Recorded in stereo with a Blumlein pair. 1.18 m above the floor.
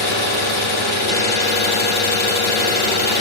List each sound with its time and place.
0.0 s an engine running: 50° left, 2 m